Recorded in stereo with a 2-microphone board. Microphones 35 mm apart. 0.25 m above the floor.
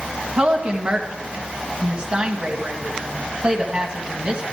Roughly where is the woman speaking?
Right.